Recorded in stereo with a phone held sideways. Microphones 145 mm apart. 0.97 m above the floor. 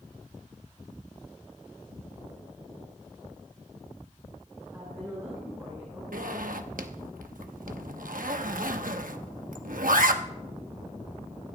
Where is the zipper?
90° right, 0.9 m.